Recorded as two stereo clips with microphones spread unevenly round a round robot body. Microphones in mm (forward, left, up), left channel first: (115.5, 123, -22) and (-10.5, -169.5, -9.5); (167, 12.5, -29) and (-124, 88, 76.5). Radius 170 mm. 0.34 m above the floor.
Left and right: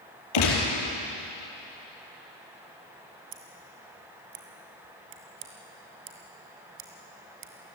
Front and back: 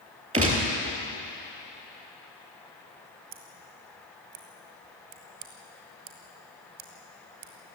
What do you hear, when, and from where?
0.3 s a gunshot: 95° left, 5 m
3.3 s scissors: 160° right, 2 m